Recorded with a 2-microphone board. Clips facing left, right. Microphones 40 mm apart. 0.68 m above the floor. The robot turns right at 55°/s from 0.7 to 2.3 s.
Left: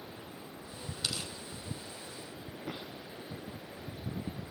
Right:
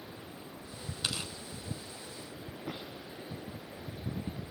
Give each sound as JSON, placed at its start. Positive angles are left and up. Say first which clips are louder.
{"t": 1.0, "sound": "tearing paper", "louder": "right 1 dB", "side_deg": -25, "distance_m": 4.0}